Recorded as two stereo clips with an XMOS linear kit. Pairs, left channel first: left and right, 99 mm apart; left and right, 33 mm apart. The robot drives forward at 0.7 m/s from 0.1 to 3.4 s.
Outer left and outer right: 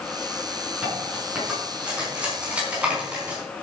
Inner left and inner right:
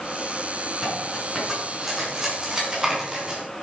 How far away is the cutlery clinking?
About 5 m.